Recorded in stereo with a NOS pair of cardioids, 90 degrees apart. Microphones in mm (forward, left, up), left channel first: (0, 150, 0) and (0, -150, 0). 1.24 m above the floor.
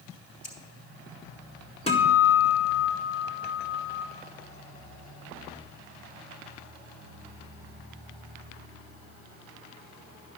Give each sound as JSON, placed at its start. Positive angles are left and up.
{"t": 0.4, "sound": "scissors", "azimuth_deg": 45, "distance_m": 4.5}
{"t": 1.9, "sound": "a guitar", "azimuth_deg": 20, "distance_m": 2.0}